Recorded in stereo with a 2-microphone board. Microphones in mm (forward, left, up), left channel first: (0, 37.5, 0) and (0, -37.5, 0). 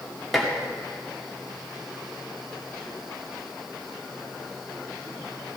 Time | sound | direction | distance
0.3 | dishes clattering | centre (ahead or behind) | 2 m